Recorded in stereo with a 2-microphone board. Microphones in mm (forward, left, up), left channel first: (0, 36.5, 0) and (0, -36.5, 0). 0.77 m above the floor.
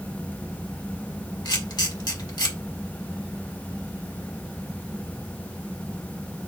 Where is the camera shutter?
75° left (ahead or behind), 1.7 m.